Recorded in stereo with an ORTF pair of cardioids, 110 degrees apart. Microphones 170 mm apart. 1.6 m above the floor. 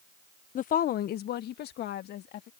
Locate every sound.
0.6 s a woman speaking: 50° left; by 2.5 s 75° left